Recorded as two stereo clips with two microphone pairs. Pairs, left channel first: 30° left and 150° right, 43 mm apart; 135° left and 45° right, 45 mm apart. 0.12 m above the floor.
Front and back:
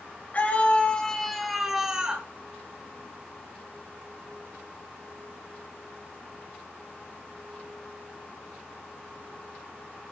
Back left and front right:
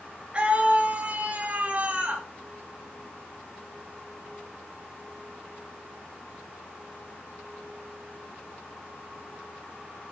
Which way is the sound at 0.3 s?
5° left.